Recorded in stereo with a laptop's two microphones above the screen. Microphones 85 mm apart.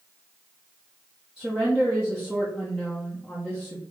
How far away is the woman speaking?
About 0.8 m.